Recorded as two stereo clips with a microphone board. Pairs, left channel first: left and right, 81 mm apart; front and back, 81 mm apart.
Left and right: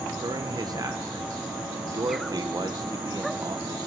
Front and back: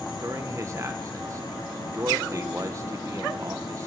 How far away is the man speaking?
About 1.5 m.